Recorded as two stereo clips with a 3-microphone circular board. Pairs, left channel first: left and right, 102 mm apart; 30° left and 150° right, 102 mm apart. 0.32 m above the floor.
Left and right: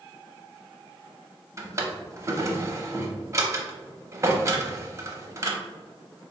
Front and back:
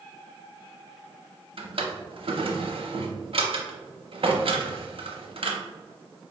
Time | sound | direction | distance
1.6 | a drawer | 150° right | 0.7 m